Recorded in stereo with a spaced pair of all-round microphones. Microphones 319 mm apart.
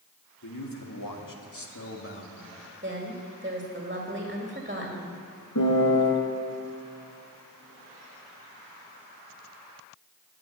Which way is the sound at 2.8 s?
30° right (ahead or behind).